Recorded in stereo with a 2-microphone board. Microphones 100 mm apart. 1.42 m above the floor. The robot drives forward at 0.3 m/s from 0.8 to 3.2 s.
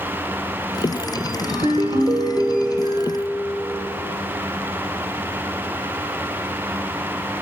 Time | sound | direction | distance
1.5 | a ringtone | 55° right (ahead or behind) | 1.7 m